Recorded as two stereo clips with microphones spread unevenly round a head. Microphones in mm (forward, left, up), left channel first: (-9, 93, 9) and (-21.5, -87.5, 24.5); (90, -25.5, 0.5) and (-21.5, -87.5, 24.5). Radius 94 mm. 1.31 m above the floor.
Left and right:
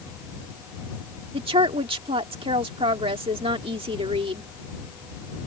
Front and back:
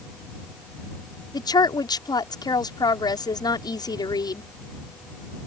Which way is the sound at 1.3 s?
30° right.